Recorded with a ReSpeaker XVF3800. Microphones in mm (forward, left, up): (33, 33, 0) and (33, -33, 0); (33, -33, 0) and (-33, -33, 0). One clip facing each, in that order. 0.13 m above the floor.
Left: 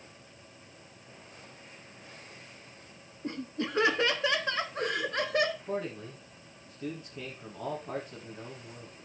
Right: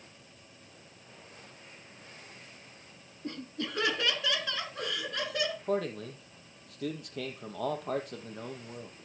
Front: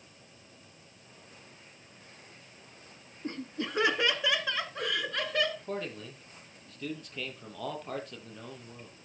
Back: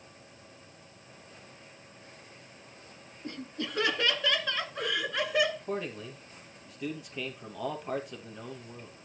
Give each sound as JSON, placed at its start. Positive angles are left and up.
{"t": 3.2, "sound": "laughter", "azimuth_deg": 35, "distance_m": 1.8}
{"t": 5.7, "sound": "a man speaking", "azimuth_deg": -100, "distance_m": 3.5}